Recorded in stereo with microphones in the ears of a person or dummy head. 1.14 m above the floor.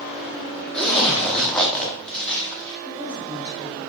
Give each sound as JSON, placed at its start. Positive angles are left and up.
{"t": 0.7, "sound": "a zipper", "side_deg": 5, "distance_m": 0.5}
{"t": 2.8, "sound": "a woman speaking", "side_deg": 70, "distance_m": 1.4}